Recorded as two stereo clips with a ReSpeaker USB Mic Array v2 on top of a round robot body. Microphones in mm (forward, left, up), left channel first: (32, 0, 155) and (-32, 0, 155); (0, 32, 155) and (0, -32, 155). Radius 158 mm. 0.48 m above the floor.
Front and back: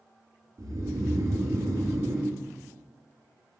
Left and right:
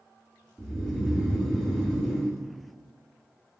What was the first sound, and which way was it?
Snoring, 170° left.